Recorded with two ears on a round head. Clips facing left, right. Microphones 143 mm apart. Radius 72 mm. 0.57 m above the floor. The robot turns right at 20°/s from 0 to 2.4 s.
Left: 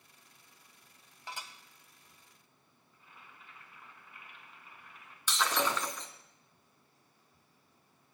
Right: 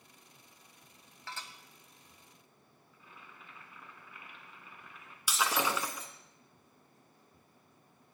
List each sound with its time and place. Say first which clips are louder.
1.3 s dishes clattering: left 1 dB; 15° left (ahead or behind), 2 m; by 1.5 s 10° left (ahead or behind), 2 m
2.9 s boiling: right 2 dB; 75° right (ahead or behind), 4 m
5.3 s breaking glass: even; 10° right (ahead or behind), 2 m